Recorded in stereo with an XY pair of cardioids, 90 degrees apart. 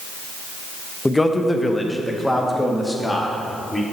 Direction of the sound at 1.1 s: 15° left.